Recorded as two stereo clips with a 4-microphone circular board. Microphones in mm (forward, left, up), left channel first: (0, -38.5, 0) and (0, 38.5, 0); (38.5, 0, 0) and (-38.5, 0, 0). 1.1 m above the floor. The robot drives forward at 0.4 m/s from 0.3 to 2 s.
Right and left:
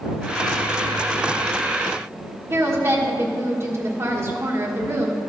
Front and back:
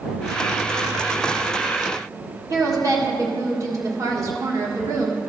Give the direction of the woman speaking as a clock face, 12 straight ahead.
7 o'clock.